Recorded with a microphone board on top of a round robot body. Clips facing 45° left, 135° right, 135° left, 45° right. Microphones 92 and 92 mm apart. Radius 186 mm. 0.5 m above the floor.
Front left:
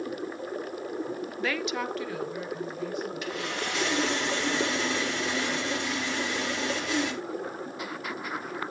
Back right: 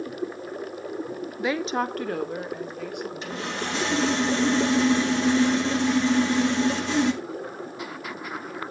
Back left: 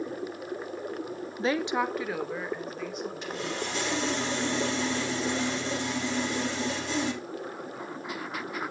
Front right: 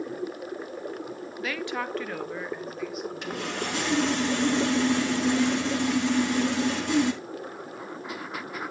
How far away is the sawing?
About 1.5 m.